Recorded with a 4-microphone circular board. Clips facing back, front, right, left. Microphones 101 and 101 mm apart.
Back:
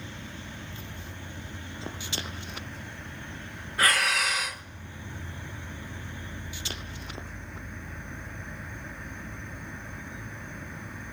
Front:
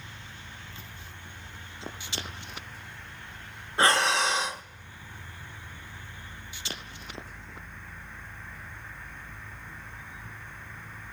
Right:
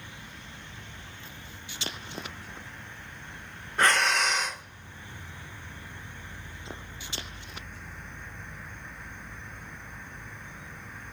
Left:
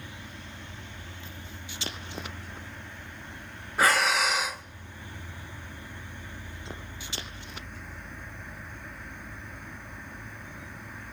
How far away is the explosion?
I don't hear an explosion.